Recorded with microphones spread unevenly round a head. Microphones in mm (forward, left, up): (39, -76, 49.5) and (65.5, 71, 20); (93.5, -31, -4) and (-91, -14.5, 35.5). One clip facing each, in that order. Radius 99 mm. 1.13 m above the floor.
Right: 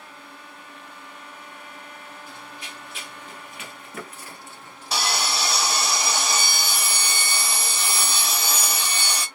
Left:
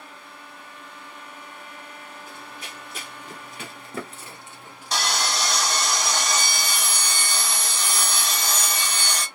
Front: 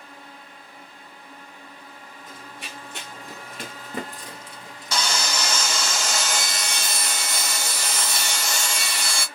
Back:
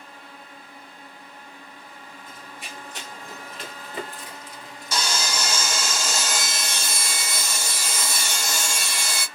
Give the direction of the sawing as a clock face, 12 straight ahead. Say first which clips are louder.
Even, front 1 dB; 1 o'clock.